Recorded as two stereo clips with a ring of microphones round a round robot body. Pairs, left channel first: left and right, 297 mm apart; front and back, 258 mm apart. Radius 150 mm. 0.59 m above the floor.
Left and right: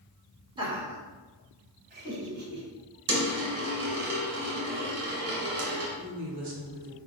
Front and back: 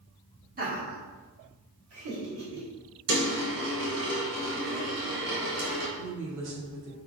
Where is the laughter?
155° right, 1.2 m; by 2.7 s 140° right, 2 m.